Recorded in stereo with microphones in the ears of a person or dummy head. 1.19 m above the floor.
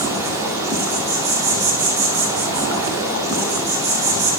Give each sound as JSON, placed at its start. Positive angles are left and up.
{"t": 0.0, "sound": "an insect", "side_deg": -5, "distance_m": 1.1}